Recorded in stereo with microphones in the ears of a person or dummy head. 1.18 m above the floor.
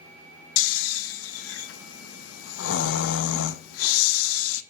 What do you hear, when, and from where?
0.6 s snoring: 80° left, 0.8 m